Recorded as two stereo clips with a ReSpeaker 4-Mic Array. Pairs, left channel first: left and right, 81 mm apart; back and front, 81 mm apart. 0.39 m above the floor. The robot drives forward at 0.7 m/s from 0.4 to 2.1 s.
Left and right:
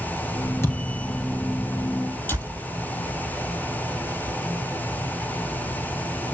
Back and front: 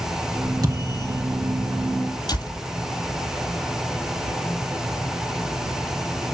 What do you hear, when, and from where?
0.6 s a thud: 35° left, 3 m
2.3 s a door slam: 155° left, 7.5 m